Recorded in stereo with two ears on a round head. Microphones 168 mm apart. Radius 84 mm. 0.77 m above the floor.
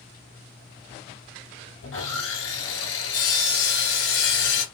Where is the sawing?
80° left, 3 m.